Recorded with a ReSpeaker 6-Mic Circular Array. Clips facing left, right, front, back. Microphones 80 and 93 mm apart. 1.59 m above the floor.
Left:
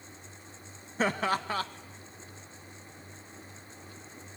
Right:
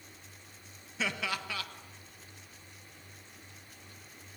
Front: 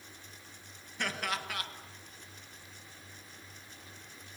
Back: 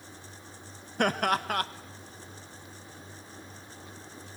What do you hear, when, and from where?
1.0 s laughter: 140° left, 1.4 m